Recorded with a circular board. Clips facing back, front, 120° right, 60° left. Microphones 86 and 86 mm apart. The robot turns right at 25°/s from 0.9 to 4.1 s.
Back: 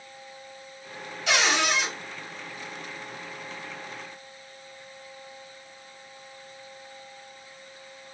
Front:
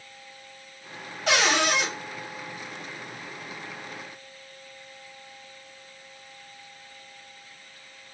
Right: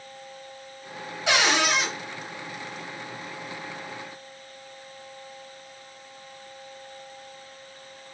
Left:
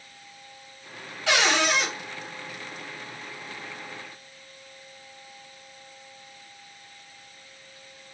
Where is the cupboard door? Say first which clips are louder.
Front 2 dB, even; 50° right, 3 m; by 1.9 s 35° right, 3 m.